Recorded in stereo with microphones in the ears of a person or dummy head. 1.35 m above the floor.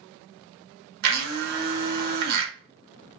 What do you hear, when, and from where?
1.0 s a blender: 55° right (ahead or behind), 0.8 m